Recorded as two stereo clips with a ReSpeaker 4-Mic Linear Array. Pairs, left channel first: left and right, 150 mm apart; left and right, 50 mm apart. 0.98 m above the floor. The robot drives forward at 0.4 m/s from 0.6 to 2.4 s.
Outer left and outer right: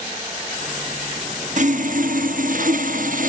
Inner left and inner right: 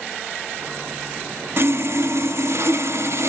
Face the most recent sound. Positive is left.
turn(degrees=-60)  # may be behind; listen again after turning